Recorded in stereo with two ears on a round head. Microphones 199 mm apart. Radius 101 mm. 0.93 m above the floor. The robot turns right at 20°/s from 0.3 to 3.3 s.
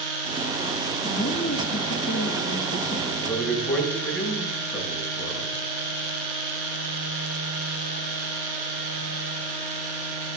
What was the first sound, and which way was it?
A woman speaking, 55° left.